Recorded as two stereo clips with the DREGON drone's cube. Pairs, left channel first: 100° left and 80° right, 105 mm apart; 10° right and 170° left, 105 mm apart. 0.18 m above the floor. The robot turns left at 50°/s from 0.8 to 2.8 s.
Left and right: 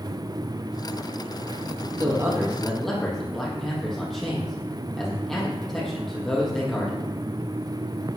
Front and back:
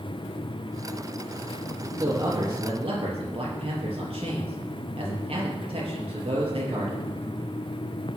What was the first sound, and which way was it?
A man speaking, 130° right.